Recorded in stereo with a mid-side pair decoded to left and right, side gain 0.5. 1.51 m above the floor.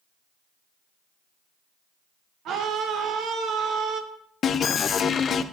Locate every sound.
2.5 s a scream: 70° right, 1.5 m
4.4 s an alarm: 50° left, 0.6 m